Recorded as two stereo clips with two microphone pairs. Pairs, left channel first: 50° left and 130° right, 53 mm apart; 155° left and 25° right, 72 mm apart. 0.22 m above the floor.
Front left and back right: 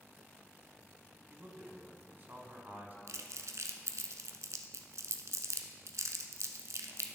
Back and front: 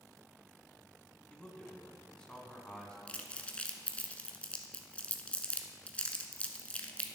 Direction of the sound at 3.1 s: 130° right.